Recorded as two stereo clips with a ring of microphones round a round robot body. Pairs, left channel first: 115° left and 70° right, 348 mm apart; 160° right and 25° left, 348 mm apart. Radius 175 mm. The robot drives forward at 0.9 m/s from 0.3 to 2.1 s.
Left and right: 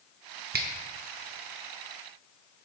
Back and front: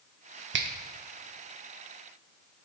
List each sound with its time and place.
0.5 s a finger snap: 20° right, 0.6 m; by 0.7 s 30° right, 0.5 m